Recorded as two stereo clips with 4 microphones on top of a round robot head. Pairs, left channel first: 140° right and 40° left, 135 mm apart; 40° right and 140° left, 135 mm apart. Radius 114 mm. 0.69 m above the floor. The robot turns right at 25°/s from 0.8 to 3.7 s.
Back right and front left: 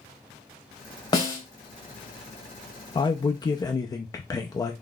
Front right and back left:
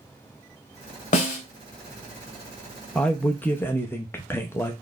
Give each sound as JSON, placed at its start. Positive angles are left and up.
{"t": 1.1, "sound": "a snare drum", "azimuth_deg": -80, "distance_m": 1.0}
{"t": 3.0, "sound": "a man speaking", "azimuth_deg": -120, "distance_m": 0.6}